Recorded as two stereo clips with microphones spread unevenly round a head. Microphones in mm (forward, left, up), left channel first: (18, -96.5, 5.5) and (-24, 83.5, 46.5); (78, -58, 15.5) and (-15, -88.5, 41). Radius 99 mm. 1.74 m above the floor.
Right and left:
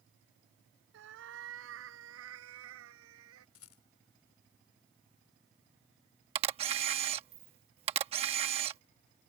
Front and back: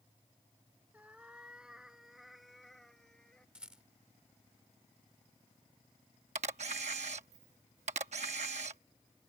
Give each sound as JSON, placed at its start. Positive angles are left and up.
{"t": 0.9, "sound": "a cat meowing", "azimuth_deg": 120}
{"t": 3.5, "sound": "a rattle", "azimuth_deg": -85}
{"t": 6.3, "sound": "a camera shutter", "azimuth_deg": 160}